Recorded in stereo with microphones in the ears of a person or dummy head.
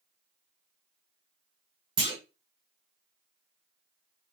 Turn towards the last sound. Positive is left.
turn(degrees=-25)  # may be behind; listen again after turning